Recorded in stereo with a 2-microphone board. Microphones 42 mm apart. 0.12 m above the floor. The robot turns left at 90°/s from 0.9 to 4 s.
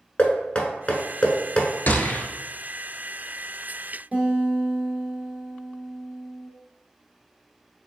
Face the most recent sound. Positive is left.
turn(degrees=-45)  # may be behind; listen again after turning